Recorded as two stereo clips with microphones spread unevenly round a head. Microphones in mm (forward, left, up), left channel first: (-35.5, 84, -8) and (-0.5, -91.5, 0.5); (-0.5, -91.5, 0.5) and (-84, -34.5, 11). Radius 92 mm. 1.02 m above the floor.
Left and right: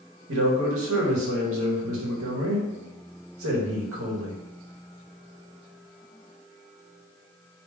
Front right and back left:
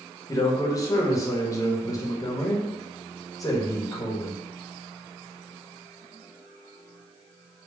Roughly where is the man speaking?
Right.